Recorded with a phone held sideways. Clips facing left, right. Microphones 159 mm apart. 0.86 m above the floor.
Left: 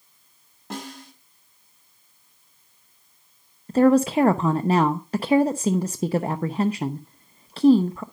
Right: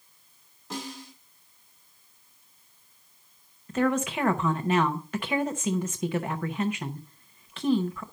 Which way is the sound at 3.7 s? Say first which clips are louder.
Left 9 dB; 35° left (ahead or behind).